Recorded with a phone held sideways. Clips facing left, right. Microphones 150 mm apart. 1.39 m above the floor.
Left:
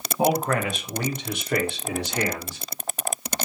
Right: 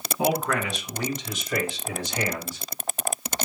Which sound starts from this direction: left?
A man speaking, at 0.2 s.